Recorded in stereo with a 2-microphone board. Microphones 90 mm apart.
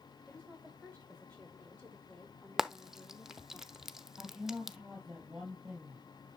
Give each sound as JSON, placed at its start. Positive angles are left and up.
{"t": 0.3, "sound": "a woman speaking", "side_deg": 15, "distance_m": 7.0}
{"t": 2.6, "sound": "frying", "side_deg": -5, "distance_m": 0.7}
{"t": 4.2, "sound": "a woman speaking", "side_deg": -5, "distance_m": 3.0}